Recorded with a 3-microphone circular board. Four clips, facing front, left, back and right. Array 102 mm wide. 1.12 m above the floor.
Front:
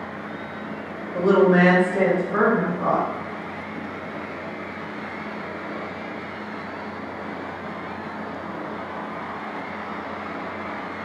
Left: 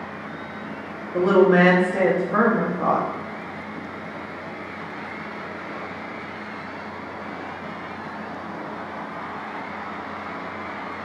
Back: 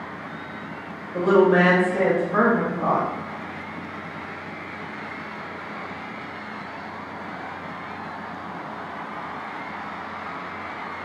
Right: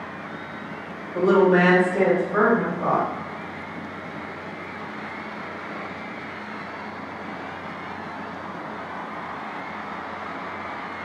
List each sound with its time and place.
1.1 s a woman speaking: 95° left, 0.9 m